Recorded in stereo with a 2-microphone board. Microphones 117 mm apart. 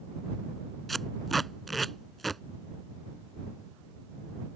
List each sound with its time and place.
0.9 s tape being pulled: centre (ahead or behind)